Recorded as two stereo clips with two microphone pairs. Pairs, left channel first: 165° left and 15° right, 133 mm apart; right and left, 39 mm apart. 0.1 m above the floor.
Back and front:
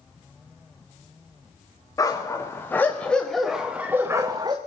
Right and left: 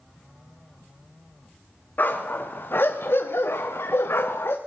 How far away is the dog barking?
About 4 m.